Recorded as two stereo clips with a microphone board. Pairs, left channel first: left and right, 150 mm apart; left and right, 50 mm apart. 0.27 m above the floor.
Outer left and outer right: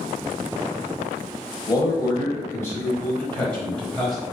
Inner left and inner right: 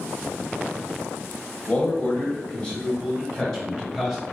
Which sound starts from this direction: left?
A man speaking, at 1.7 s.